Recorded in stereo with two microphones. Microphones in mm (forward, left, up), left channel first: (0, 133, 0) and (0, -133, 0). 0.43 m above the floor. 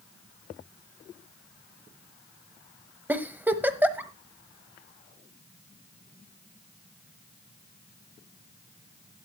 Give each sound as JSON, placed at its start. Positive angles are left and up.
{"t": 3.1, "sound": "a giggle", "side_deg": -5, "distance_m": 1.1}